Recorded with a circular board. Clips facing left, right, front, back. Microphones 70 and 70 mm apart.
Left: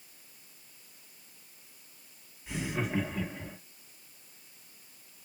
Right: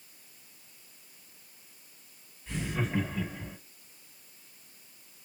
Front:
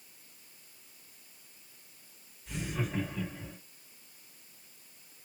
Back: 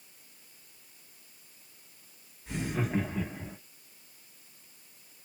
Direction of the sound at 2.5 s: 165° left.